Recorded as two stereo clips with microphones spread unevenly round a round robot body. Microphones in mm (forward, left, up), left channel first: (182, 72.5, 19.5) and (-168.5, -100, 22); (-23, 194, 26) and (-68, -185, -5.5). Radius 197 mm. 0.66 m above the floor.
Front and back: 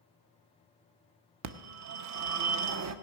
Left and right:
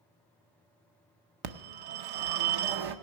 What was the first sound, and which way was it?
A phone ringing, 105° right.